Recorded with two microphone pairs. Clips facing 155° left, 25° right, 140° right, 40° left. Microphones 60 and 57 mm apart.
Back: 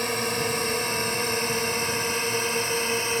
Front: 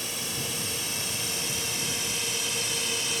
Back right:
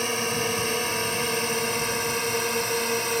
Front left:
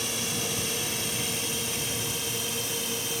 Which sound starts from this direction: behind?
A drone, at 0.0 s.